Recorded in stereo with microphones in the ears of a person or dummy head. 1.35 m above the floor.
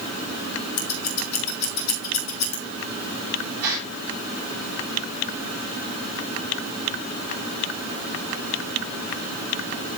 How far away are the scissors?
About 3 m.